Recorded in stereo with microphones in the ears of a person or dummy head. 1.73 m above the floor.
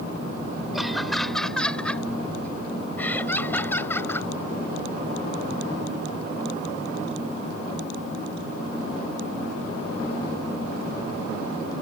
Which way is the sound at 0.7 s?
Centre (ahead or behind).